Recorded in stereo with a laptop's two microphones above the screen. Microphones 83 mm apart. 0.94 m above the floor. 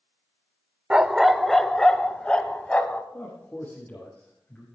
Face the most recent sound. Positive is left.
turn(degrees=20)  # may be behind; listen again after turning